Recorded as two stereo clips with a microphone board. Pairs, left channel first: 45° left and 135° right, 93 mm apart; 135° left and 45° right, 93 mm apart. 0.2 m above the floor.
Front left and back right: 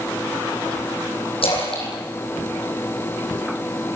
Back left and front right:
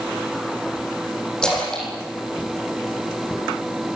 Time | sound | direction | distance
1.4 | a splash | 55° left | 9.5 m